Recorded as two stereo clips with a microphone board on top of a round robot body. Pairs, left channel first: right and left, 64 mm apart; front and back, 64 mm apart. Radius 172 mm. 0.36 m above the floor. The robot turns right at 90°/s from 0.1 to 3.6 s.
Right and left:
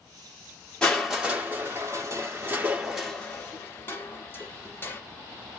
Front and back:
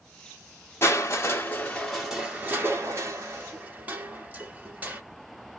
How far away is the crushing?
About 1.6 m.